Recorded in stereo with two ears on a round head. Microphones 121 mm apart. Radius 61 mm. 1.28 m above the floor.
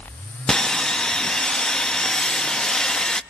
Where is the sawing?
5° left (ahead or behind), 0.7 m.